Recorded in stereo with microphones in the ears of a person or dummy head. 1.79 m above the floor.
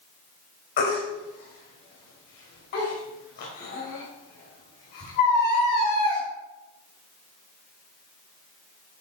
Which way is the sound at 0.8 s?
50° left (ahead or behind).